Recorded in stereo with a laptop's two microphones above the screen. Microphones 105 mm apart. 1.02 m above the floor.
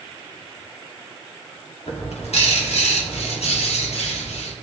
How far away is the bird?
About 1.5 m.